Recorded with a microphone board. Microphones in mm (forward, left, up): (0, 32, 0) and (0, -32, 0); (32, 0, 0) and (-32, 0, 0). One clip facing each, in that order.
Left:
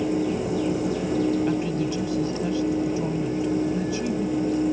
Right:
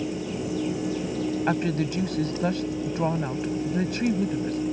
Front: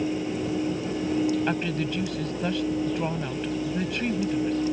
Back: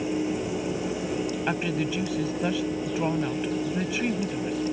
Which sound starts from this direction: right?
A woman speaking, at 1.5 s.